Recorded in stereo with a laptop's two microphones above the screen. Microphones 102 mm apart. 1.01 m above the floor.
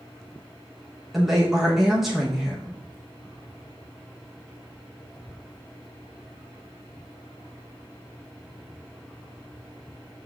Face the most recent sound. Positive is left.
turn(degrees=0)  # may be behind; listen again after turning